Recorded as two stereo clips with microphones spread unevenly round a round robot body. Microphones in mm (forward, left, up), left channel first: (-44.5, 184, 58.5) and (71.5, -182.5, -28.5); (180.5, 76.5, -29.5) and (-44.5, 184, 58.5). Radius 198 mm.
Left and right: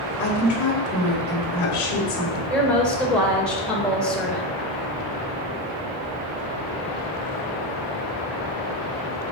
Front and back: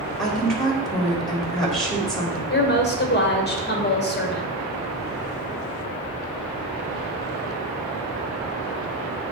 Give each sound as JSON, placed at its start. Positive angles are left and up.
{"t": 0.2, "sound": "a woman speaking", "azimuth_deg": 60, "distance_m": 4.0}
{"t": 2.5, "sound": "a woman speaking", "azimuth_deg": 20, "distance_m": 2.5}